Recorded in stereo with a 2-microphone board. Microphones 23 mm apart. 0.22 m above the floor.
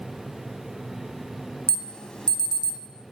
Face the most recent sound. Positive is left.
turn(degrees=40)  # may be behind; listen again after turning